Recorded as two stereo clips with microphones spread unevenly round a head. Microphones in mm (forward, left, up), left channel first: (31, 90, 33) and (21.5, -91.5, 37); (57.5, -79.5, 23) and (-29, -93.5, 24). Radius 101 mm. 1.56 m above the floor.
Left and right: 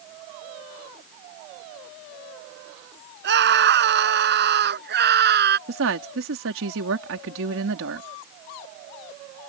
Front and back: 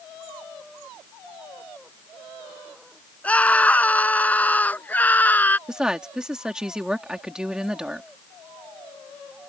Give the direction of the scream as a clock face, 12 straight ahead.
2 o'clock.